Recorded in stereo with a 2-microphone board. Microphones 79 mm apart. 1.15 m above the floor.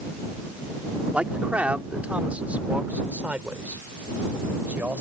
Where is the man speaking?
15° right (ahead or behind); by 5.0 s 20° right (ahead or behind).